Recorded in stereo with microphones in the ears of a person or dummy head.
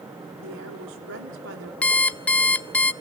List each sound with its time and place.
0.4 s a woman speaking: 70° right (ahead or behind), 3.5 m
1.8 s an alarm clock: 5° left (ahead or behind), 0.5 m